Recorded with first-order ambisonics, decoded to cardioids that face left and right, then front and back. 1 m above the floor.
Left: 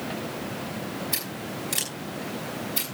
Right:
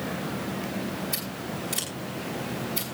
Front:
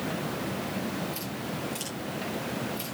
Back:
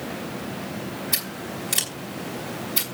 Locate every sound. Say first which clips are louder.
1.1 s scissors: left 1 dB, back 5 dB; 160° left, 4.5 m